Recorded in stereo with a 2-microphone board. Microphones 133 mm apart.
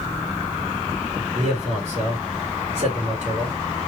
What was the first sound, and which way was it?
A man speaking, 55° right (ahead or behind).